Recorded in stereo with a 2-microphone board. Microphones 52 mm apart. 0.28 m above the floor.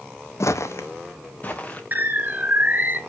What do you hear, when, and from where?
0.4 s footsteps: 65° left (ahead or behind), 0.6 m; by 1.8 s 25° left (ahead or behind), 1.3 m
1.9 s a bird: 35° right (ahead or behind), 0.6 m